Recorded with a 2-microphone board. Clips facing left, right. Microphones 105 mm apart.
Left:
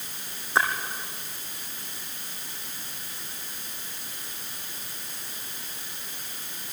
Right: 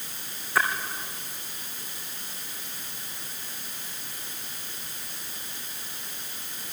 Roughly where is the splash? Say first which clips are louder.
Left 1 dB; left.